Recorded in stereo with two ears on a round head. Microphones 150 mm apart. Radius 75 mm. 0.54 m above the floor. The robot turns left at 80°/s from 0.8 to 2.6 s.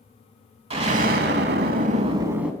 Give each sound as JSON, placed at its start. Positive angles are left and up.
{"t": 0.7, "sound": "an explosion", "azimuth_deg": -40, "distance_m": 0.7}